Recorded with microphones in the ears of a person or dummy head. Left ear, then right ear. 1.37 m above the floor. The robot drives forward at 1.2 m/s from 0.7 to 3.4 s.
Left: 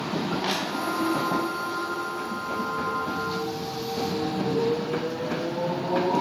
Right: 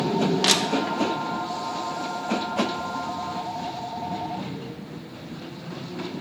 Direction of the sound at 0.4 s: 15° right (ahead or behind).